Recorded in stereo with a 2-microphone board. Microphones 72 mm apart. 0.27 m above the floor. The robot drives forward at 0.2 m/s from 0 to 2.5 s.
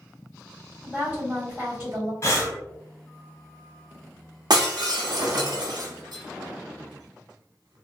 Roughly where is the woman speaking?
Right.